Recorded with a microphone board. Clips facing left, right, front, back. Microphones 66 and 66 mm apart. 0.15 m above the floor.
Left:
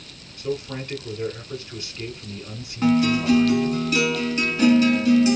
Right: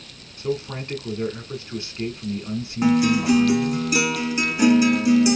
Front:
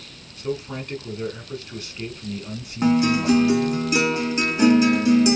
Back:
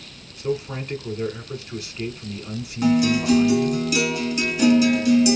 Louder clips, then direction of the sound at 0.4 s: Right 1 dB, back 2 dB; 105° right.